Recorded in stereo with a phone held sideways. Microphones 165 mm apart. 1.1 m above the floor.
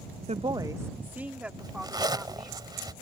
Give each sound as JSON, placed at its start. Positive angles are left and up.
{"t": 0.3, "sound": "a woman speaking", "side_deg": -45}
{"t": 1.6, "sound": "a zipper", "side_deg": -25}